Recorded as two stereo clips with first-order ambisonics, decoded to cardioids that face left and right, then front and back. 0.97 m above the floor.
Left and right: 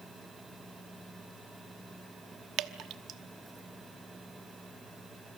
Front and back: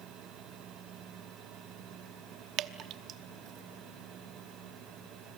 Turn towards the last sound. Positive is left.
turn(degrees=-135)